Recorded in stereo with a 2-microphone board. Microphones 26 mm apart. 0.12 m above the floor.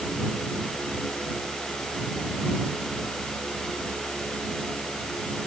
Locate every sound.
Only background noise.